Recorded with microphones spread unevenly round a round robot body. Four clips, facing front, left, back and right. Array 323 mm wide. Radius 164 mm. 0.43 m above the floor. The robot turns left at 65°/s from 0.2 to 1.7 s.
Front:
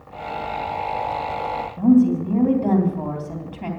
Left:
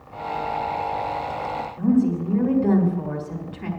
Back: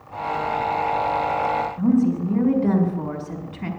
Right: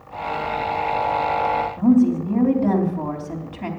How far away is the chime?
I don't hear a chime.